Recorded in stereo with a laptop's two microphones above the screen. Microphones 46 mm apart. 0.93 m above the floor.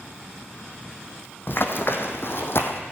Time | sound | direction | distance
1.5 | running footsteps | 55° left (ahead or behind) | 2.0 m